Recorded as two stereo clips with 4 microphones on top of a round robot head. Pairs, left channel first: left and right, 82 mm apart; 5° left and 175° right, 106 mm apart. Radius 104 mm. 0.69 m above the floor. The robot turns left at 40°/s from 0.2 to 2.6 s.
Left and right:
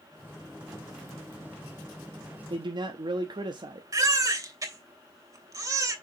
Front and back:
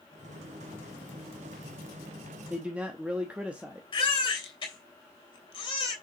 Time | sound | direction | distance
2.5 | a man speaking | 95° right | 0.9 m
3.9 | a baby crying | 45° right | 2.5 m